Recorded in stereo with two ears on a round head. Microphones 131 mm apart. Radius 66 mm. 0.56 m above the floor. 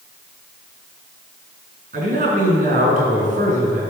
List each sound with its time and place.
1.9 s a man speaking: 55° right (ahead or behind), 6.5 m